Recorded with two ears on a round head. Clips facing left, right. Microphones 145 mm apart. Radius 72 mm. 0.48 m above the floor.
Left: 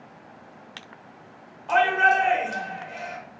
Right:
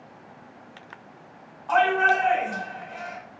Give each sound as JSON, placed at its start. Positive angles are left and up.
{"t": 1.7, "sound": "a shout", "side_deg": 30, "distance_m": 1.8}